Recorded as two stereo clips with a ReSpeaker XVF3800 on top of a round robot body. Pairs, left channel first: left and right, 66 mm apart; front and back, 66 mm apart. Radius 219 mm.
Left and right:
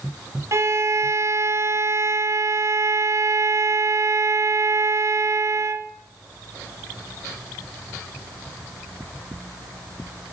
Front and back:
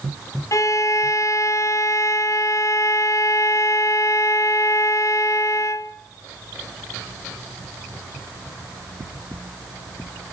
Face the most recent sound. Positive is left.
turn(degrees=-40)